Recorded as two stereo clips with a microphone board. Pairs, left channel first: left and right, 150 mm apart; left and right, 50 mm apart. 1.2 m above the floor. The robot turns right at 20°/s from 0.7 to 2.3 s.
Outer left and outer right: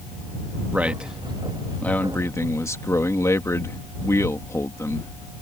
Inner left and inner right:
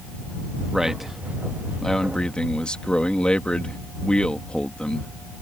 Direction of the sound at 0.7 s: 10° right.